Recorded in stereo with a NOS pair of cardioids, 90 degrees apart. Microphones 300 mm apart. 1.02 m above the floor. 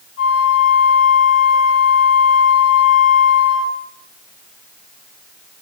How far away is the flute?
About 1.7 m.